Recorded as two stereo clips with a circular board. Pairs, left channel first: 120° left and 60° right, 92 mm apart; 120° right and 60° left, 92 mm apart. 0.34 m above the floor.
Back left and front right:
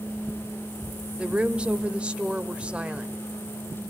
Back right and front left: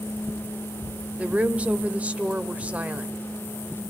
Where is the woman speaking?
5° left, 0.9 m.